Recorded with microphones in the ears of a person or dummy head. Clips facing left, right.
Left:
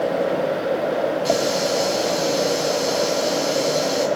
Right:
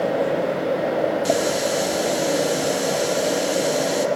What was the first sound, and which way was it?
A running tap, 15° right (ahead or behind).